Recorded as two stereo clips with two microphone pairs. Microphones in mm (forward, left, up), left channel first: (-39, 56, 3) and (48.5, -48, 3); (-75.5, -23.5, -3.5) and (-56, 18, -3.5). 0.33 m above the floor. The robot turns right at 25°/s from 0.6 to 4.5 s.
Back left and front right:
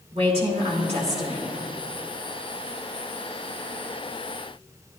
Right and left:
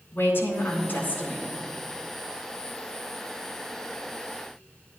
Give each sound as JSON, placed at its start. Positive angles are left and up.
{"t": 0.1, "sound": "a woman speaking", "azimuth_deg": -85, "distance_m": 3.5}